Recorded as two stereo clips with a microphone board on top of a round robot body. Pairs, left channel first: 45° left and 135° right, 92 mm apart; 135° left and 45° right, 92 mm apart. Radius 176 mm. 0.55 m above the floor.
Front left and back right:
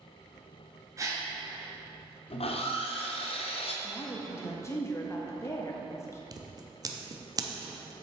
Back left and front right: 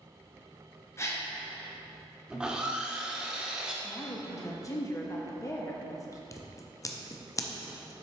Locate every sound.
1.0 s a gasp: 175° right, 1.6 m
2.3 s sawing: 35° left, 0.6 m
3.8 s a woman speaking: 95° left, 0.9 m
6.3 s scissors: 175° right, 0.8 m